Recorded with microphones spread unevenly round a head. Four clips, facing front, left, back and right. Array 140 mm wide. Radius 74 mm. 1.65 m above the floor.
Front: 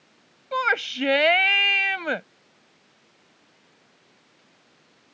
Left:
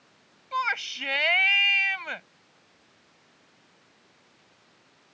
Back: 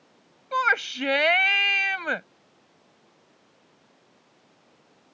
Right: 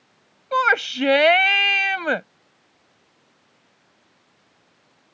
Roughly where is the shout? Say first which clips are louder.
Right 10 dB, even; ahead right.